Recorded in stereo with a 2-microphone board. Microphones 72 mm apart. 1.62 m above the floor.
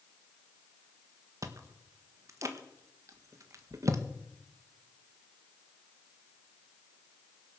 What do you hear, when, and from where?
1.4 s chewing: 45° right (ahead or behind), 1.5 m